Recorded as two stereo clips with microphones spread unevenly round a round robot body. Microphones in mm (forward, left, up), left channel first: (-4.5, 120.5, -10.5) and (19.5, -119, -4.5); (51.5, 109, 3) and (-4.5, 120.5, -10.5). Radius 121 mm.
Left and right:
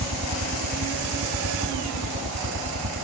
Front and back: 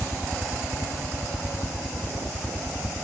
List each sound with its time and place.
0.0 s a helicopter: 85° right